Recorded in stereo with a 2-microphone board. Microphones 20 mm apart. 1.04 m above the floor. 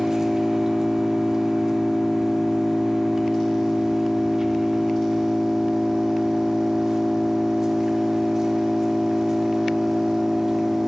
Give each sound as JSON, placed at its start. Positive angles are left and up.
{"t": 0.0, "sound": "an engine running", "side_deg": -30, "distance_m": 1.7}